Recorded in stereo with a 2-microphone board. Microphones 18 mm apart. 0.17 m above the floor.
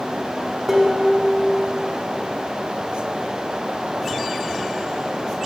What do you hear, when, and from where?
0.7 s dishes clattering: 25° right (ahead or behind), 0.8 m